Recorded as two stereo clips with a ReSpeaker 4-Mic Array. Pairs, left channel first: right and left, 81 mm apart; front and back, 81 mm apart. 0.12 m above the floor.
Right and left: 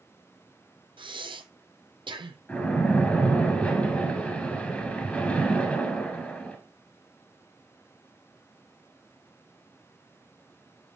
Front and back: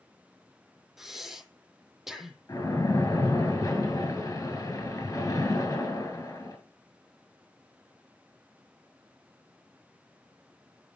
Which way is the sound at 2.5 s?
25° right.